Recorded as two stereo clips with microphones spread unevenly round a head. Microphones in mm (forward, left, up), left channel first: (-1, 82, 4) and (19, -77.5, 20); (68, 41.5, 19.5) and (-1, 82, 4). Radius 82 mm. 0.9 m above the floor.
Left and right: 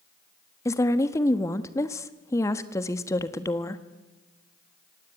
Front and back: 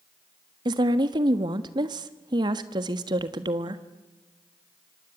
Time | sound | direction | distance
0.7 | a woman speaking | 165° left | 1.4 m